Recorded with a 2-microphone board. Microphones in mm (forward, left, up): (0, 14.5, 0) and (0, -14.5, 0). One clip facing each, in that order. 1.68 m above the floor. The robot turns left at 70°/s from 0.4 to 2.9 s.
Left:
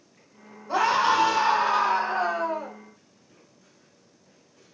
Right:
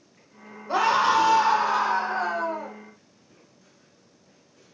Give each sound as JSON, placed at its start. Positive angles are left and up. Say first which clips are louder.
{"t": 0.7, "sound": "a scream", "louder": "right 1 dB", "azimuth_deg": -155, "distance_m": 1.3}